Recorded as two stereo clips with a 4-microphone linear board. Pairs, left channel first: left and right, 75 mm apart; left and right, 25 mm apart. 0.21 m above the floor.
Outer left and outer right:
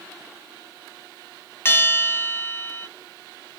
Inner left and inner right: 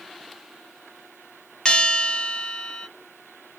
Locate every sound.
1.6 s a bell: 35° left (ahead or behind), 0.9 m